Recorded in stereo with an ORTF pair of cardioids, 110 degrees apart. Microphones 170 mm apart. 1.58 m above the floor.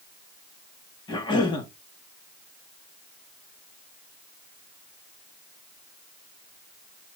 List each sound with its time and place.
1.1 s a cough: 25° left, 2.5 m